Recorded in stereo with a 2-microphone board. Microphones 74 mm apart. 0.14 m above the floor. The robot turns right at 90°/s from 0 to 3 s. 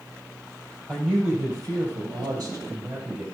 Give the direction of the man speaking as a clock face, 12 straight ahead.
7 o'clock.